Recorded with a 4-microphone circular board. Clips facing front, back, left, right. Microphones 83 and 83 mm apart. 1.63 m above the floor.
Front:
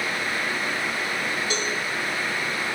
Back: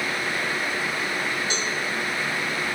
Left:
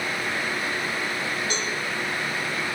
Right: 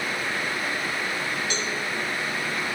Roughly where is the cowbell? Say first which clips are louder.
Front 1 dB, even; ahead left.